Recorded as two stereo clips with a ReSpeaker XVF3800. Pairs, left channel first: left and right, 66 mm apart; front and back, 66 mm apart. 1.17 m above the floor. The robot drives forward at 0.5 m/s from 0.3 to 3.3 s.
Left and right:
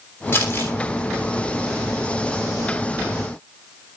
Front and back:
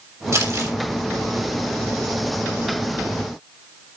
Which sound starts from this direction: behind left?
Crumpling, at 0.3 s.